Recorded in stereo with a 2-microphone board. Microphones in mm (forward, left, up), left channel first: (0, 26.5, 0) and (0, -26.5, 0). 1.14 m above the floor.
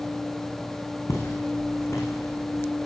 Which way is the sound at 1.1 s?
70° left (ahead or behind).